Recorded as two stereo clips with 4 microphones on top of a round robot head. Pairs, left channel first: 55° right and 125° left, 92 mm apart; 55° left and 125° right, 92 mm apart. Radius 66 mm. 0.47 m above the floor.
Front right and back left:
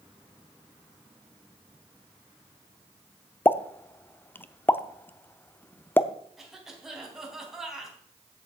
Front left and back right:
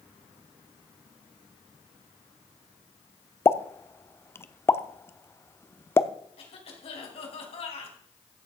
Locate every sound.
3.5 s a pop: 5° left, 0.7 m
6.4 s a cough: 40° left, 4 m